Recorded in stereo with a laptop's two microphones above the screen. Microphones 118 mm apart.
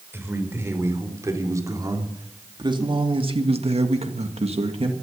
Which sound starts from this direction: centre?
A man speaking, at 0.1 s.